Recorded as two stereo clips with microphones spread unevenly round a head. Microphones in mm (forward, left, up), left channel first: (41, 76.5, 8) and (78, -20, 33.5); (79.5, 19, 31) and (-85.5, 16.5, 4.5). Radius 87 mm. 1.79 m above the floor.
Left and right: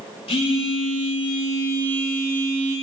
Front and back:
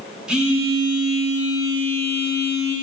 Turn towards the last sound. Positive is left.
turn(degrees=90)